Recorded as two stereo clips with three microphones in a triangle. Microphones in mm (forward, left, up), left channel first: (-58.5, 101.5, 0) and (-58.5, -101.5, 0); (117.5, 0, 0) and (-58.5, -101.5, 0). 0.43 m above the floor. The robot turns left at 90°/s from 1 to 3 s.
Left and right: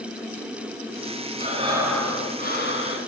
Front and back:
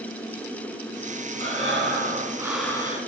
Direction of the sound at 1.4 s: 130° right.